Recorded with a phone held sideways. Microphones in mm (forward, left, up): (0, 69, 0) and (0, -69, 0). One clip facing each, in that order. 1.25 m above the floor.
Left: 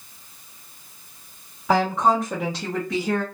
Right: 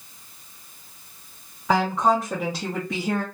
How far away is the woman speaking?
About 1.4 m.